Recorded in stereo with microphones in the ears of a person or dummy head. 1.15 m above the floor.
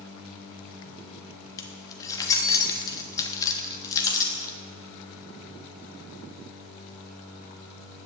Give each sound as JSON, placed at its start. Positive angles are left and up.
{"t": 1.6, "sound": "keys jangling", "side_deg": 15, "distance_m": 1.2}